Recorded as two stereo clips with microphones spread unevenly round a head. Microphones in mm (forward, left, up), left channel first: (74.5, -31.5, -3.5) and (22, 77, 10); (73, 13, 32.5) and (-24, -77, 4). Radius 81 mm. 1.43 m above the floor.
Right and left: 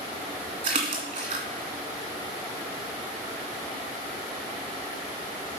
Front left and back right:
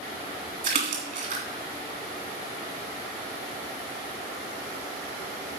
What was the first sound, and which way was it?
A splash, straight behind.